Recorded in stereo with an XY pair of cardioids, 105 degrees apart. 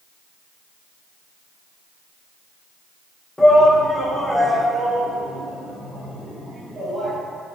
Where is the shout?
20° left, 1.9 m; by 7.2 s 10° right, 5.5 m.